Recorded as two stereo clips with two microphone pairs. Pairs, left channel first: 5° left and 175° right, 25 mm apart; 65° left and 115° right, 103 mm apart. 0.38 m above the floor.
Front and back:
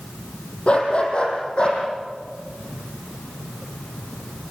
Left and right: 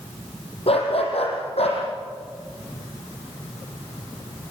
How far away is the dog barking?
About 5.5 m.